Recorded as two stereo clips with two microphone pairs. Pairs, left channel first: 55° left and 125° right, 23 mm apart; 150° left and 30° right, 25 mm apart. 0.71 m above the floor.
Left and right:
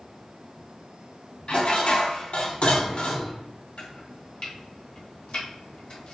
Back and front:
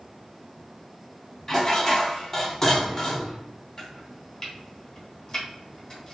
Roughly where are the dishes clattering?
Left.